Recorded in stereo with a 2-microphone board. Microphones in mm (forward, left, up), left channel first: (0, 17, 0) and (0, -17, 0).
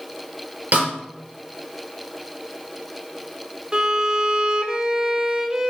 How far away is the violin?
About 0.7 m.